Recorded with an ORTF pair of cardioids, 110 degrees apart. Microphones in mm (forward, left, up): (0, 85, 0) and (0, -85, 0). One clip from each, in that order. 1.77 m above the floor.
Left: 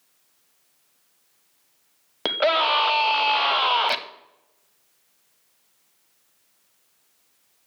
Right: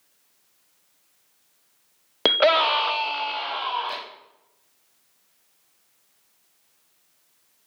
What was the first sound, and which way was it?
A scream, 25° right.